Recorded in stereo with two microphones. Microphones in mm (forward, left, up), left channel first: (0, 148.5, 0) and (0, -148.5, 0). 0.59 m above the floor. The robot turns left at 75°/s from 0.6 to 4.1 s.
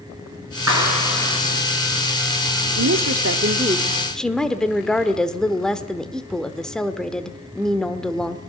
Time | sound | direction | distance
0.7 | a clap | 60° right | 6 m
2.8 | a woman speaking | 80° right | 1.3 m